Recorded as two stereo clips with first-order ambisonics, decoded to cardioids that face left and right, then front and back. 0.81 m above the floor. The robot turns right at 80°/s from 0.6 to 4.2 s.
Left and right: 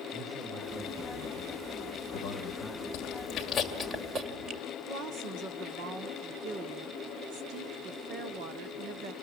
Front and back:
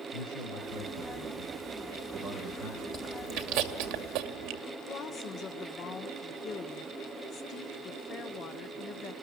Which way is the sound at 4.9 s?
50° right.